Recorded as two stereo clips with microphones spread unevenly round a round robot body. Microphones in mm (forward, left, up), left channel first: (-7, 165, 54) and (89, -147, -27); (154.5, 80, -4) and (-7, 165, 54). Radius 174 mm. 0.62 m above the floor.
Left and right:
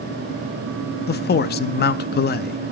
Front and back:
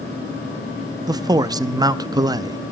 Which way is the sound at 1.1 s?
70° left.